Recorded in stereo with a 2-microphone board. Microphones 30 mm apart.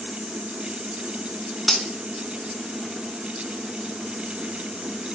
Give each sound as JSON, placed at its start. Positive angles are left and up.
{"t": 1.7, "sound": "cutlery clinking", "side_deg": 0, "distance_m": 0.7}